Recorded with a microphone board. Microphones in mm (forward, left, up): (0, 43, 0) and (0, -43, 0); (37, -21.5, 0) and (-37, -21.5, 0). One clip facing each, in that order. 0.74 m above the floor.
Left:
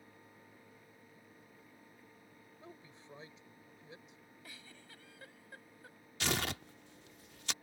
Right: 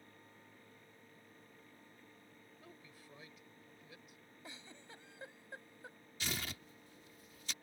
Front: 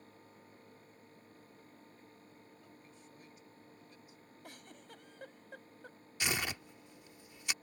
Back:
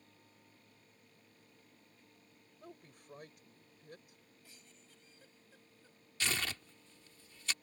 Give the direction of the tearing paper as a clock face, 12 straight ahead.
10 o'clock.